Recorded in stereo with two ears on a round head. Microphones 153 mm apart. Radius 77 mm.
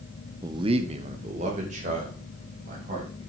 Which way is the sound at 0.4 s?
15° right (ahead or behind).